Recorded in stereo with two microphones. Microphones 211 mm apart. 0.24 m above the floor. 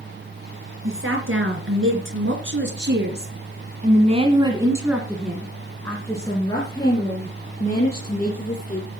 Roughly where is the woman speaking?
Right.